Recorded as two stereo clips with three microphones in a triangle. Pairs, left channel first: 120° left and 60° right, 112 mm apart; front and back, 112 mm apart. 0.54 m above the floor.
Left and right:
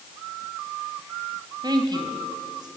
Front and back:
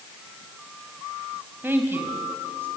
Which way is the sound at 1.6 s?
110° right.